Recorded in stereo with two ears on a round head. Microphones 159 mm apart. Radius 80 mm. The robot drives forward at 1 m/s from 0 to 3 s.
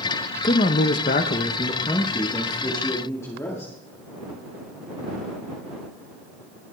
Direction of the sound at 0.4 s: 35° left (ahead or behind).